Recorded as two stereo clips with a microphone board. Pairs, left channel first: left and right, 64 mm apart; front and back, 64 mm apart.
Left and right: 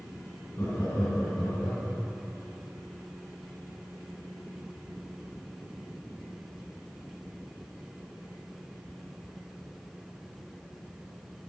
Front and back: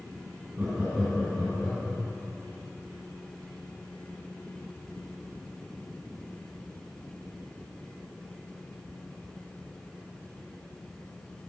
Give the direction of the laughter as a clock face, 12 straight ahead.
8 o'clock.